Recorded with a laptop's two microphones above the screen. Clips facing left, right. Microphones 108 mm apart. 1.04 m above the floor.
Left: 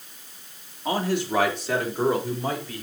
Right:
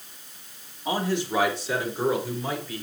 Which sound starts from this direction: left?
A man speaking, at 0.8 s.